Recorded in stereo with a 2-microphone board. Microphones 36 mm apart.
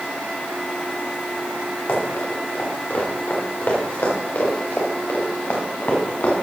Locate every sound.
1.9 s running footsteps: 75° left (ahead or behind), 5 m; by 6.3 s 70° left (ahead or behind), 4 m